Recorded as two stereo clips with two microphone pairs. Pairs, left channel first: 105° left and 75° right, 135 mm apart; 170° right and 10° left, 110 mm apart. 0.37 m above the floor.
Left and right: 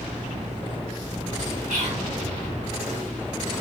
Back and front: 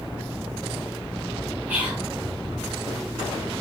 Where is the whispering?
60° right, 2 m.